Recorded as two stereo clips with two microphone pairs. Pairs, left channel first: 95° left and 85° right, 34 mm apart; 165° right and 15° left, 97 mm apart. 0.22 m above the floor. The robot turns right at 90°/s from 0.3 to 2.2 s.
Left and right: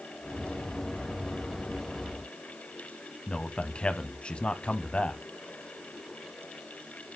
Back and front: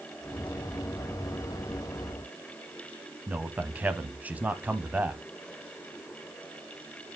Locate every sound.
3.3 s a man speaking: 80° left, 1.2 m